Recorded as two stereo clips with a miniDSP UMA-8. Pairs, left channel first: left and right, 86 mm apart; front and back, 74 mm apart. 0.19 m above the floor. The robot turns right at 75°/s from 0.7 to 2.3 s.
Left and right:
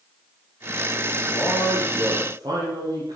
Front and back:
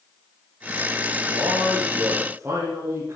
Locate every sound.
1.2 s a man speaking: 155° left, 4.5 m; by 3.2 s 125° right, 4.5 m